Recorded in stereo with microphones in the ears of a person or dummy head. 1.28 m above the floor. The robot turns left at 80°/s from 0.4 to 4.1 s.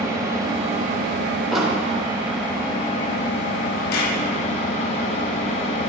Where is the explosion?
Centre (ahead or behind), 1.1 m; by 1.9 s 25° right (ahead or behind), 1.1 m.